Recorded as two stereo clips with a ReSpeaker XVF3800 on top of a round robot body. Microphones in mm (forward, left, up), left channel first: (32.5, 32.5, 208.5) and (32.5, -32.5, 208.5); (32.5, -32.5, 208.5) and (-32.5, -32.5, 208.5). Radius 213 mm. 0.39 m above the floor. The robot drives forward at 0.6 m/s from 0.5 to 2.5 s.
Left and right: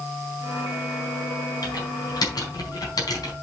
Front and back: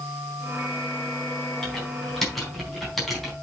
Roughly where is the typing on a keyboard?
Left.